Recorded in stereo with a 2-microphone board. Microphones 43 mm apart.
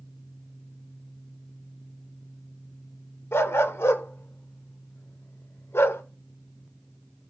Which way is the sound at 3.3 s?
75° left (ahead or behind).